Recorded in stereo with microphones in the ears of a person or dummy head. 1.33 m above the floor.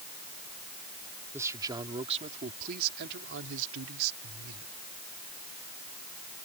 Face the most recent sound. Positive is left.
turn(degrees=-90)